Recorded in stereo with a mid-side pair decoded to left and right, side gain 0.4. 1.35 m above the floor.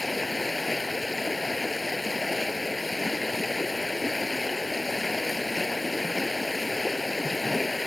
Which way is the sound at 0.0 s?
20° left.